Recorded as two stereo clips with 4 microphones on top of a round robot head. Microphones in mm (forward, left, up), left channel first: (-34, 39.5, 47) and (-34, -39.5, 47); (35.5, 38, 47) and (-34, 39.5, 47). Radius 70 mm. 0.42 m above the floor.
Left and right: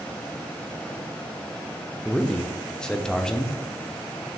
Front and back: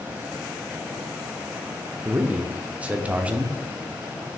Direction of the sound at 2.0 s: 155° left.